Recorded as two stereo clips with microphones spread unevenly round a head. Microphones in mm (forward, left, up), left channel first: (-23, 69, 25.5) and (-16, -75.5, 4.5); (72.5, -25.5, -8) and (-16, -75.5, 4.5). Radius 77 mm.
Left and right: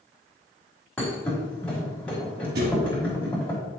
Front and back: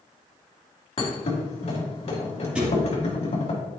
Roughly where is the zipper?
No zipper in this recording.